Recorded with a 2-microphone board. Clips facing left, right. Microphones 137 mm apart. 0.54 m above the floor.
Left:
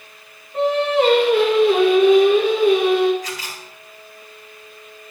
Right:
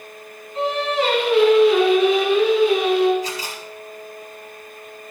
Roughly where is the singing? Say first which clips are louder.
Left 4 dB; left.